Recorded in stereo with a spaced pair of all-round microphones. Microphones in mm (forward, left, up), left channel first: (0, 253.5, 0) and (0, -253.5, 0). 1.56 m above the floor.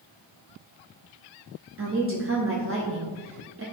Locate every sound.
1.8 s a woman speaking: 25° right (ahead or behind), 0.6 m